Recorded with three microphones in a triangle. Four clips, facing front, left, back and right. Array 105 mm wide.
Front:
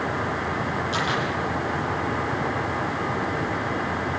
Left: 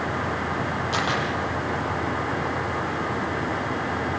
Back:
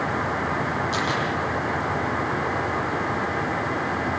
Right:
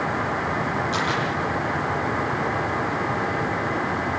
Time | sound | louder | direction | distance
0.9 | a camera shutter | right 1 dB, even | 105° left | 7.5 m